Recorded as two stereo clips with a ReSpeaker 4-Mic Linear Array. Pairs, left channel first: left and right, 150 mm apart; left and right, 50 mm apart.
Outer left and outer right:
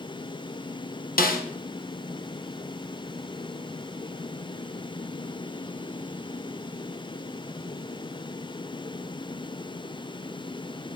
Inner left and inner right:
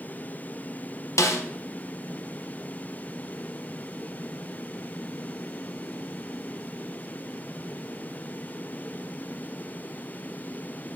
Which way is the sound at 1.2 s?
70° left (ahead or behind).